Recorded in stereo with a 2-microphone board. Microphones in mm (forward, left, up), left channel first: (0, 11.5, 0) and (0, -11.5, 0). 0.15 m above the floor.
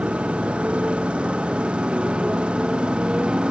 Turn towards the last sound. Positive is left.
turn(degrees=-55)  # may be behind; listen again after turning